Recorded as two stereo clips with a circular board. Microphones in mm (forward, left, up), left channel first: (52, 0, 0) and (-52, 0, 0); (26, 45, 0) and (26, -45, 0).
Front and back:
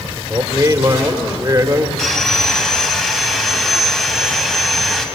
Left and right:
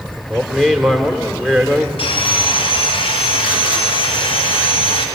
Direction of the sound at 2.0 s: 85° left.